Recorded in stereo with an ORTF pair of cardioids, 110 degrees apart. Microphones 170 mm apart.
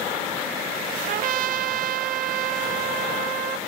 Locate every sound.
1.1 s a trumpet: 55° right, 1.2 m